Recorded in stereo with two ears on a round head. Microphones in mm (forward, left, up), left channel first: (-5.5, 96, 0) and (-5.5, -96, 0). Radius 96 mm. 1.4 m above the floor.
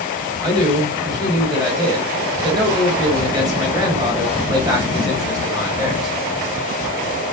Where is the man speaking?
20° right (ahead or behind), 1.4 m.